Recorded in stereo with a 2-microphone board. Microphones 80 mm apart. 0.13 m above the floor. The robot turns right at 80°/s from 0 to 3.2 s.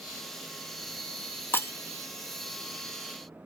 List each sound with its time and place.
1.5 s breaking glass: 30° left (ahead or behind), 0.5 m